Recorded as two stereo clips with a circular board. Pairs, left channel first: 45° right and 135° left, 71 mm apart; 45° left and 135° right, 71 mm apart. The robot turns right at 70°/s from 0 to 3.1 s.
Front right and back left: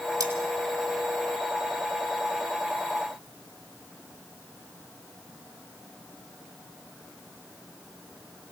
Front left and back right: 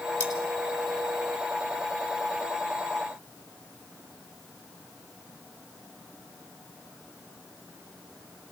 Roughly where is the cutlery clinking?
Behind left.